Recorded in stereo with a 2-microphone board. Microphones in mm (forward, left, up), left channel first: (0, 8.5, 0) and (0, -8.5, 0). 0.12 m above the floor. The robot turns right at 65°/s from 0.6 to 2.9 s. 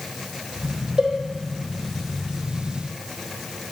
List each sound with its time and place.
1.0 s a cowbell: 50° right (ahead or behind), 0.7 m; by 1.1 s 55° right (ahead or behind), 0.7 m